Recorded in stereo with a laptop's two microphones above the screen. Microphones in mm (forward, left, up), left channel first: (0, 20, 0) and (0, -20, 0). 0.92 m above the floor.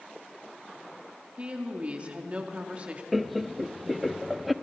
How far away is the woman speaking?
About 2.0 m.